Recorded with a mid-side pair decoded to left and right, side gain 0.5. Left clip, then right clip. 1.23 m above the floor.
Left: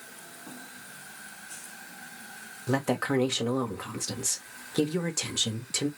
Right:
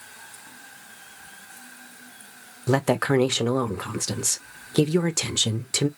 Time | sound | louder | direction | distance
2.7 | a woman speaking | right 6 dB | 45° right | 0.6 m